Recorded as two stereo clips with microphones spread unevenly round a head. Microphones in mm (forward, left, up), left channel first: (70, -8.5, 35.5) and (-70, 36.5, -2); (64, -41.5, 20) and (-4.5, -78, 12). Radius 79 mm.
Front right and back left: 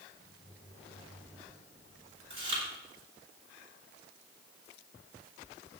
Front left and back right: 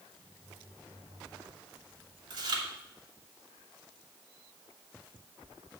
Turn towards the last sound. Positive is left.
turn(degrees=-140)